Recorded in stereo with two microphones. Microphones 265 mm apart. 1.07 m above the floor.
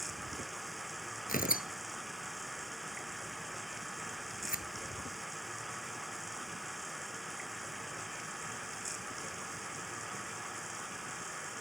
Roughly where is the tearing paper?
Left.